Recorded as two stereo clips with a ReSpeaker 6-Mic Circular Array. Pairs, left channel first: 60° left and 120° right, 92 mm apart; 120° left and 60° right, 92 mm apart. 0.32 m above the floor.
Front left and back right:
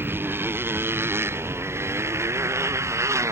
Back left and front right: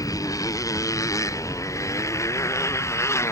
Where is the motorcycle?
170° left; by 3.3 s straight behind.